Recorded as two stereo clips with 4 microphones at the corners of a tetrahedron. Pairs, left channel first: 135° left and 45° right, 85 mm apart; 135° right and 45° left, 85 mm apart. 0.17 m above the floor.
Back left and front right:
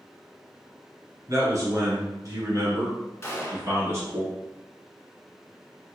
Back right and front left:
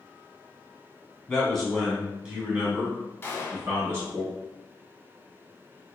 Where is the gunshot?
175° left, 0.6 m.